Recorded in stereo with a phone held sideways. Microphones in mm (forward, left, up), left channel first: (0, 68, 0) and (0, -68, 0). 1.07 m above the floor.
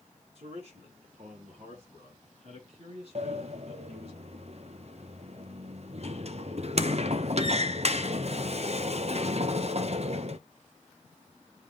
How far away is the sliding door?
About 0.7 m.